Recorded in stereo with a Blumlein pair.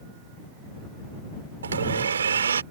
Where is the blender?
70° right.